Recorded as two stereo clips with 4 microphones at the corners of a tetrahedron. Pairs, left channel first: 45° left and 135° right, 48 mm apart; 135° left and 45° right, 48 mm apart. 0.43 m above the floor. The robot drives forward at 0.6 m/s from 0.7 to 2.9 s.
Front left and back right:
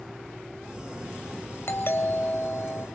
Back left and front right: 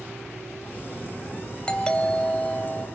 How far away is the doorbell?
About 3 m.